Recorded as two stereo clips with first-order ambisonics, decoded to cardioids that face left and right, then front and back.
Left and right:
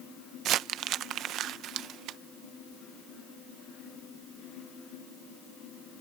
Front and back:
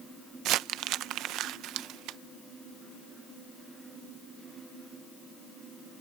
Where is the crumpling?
140° right.